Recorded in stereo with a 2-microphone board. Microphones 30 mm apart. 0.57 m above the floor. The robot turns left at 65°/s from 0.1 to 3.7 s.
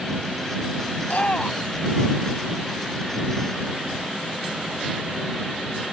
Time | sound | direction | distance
1.0 | a shout | 65° left (ahead or behind) | ?